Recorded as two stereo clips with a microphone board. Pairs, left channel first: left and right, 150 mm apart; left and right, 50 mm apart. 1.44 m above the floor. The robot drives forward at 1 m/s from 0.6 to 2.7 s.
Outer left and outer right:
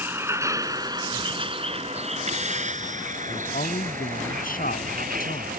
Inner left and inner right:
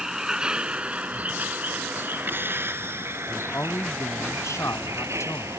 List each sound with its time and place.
0.0 s a vehicle: 15° right (ahead or behind); by 5.6 s 70° right (ahead or behind)
3.3 s a man speaking: 70° left (ahead or behind)